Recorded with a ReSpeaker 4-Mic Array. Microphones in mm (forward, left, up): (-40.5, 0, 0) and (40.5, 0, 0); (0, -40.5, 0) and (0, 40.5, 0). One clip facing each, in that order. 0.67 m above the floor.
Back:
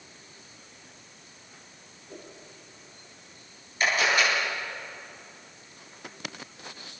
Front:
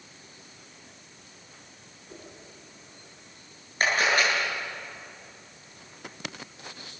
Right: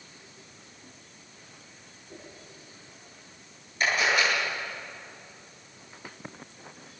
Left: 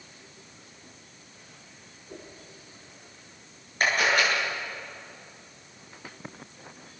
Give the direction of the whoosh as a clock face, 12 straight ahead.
10 o'clock.